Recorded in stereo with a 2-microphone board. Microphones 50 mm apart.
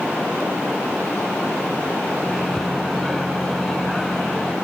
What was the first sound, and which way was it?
A microwave, 10° left (ahead or behind).